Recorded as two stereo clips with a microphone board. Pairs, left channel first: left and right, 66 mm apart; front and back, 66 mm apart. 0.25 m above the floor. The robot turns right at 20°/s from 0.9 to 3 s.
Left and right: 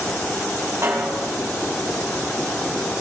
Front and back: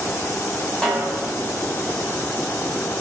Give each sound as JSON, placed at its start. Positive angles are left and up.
{"t": 0.8, "sound": "a snare drum", "azimuth_deg": -70, "distance_m": 2.0}